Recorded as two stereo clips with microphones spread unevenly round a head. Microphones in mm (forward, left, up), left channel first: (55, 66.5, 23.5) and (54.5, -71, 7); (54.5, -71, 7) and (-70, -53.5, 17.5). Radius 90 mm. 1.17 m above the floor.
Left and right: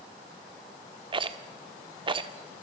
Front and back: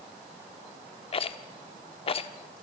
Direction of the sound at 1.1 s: 40° right.